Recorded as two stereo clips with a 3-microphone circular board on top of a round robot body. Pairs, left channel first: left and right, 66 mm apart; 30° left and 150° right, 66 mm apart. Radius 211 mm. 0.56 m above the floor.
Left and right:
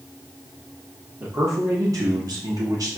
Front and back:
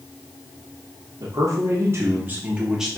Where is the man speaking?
135° right, 2 m; by 3.0 s 65° right, 2.5 m.